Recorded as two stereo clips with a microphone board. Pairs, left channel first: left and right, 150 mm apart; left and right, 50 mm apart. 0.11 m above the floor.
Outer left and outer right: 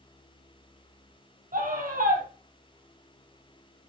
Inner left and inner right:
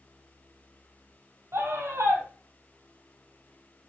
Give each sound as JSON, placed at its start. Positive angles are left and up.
{"t": 1.5, "sound": "a scream", "side_deg": -65, "distance_m": 3.0}